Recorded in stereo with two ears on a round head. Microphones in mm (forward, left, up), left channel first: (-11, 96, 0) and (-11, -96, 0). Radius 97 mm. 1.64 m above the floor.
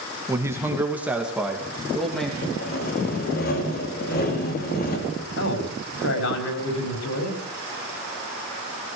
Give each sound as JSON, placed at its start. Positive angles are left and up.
{"t": 0.3, "sound": "a man speaking", "side_deg": -15, "distance_m": 2.0}
{"t": 2.4, "sound": "sawing", "side_deg": 45, "distance_m": 3.5}
{"t": 5.4, "sound": "a man speaking", "side_deg": 65, "distance_m": 6.0}